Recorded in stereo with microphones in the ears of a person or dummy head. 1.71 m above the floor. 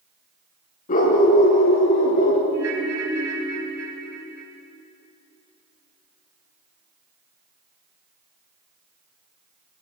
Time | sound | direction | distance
0.9 | a dog barking | 40° left (ahead or behind) | 6 m
2.5 | a ringtone | 75° right (ahead or behind) | 6 m